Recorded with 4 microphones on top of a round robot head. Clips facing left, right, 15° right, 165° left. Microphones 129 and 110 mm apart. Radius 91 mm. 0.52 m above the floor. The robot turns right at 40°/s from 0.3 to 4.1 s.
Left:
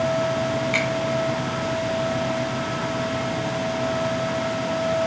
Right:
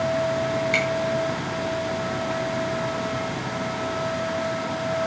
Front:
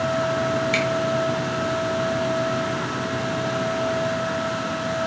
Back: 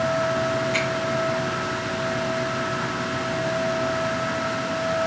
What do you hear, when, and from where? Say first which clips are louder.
0.7 s a finger snap: even, front 2 dB; 30° right, 7 m; by 0.8 s 25° right, 7 m